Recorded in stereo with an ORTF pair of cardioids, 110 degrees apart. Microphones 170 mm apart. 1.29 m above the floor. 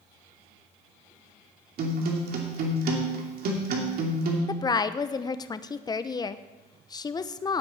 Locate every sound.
1.8 s a guitar: 60° right, 2.5 m
4.5 s a woman speaking: 25° left, 0.7 m